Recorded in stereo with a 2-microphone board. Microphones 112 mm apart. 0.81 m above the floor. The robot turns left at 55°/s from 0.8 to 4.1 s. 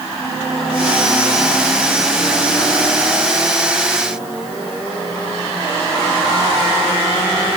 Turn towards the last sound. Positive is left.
No sound to turn to.